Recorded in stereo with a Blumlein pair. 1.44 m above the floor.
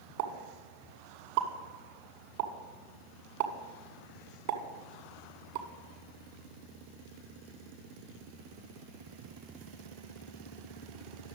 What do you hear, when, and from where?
0.2 s a pop: 50° right, 1.7 m